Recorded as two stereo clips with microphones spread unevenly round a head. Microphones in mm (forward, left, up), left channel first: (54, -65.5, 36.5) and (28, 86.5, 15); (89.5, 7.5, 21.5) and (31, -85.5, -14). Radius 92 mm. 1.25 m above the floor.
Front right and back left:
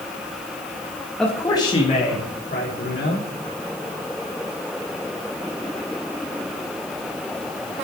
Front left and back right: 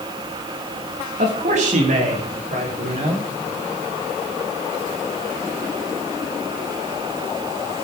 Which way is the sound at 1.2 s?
170° right.